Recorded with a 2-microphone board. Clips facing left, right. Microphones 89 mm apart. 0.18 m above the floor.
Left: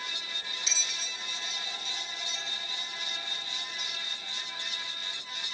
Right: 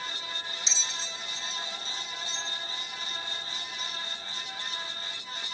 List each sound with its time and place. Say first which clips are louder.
0.7 s a bell: right 2 dB; 25° right (ahead or behind), 0.5 m